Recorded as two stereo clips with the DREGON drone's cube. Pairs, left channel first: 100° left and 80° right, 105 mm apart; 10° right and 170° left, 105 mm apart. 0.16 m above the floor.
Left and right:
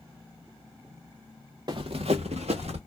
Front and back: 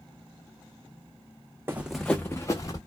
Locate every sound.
1.7 s running footsteps: 120° right, 0.6 m; by 2.8 s 65° right, 1.1 m